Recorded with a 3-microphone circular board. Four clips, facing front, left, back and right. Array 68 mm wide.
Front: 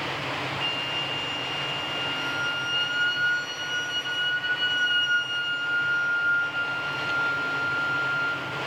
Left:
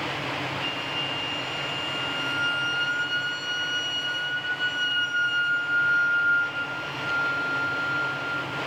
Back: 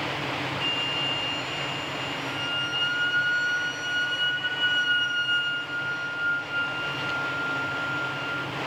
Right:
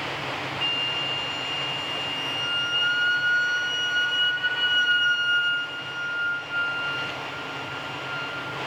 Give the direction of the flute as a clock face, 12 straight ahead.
3 o'clock.